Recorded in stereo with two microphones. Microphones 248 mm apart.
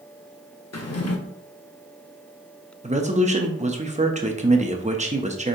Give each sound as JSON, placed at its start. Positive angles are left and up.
{"t": 0.7, "sound": "a drawer", "side_deg": 85, "distance_m": 0.6}
{"t": 2.8, "sound": "a man speaking", "side_deg": -30, "distance_m": 0.6}